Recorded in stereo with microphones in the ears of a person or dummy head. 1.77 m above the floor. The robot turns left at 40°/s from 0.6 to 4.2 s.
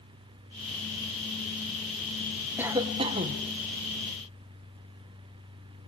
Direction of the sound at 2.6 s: 15° right.